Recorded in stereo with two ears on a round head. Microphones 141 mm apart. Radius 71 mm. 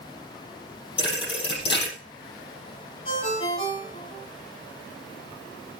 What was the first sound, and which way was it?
A thud, 35° left (ahead or behind).